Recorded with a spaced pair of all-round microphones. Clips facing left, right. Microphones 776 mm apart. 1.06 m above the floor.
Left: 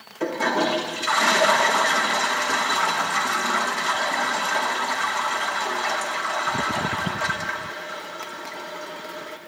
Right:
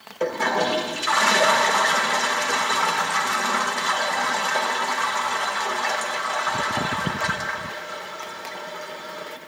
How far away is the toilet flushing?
About 0.9 m.